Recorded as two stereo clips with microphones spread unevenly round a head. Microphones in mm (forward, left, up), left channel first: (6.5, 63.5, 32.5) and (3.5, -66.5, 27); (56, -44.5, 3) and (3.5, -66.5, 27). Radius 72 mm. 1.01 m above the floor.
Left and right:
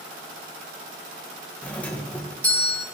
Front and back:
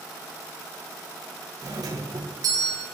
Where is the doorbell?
165° left, 1.6 m.